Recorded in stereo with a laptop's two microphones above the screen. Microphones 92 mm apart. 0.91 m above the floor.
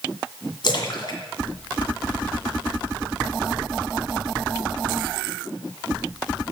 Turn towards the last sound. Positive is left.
turn(degrees=55)  # may be behind; listen again after turning